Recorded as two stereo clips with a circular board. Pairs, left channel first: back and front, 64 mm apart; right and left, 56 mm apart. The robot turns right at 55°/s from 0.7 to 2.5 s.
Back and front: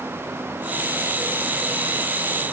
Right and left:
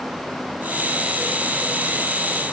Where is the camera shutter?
No camera shutter in this recording.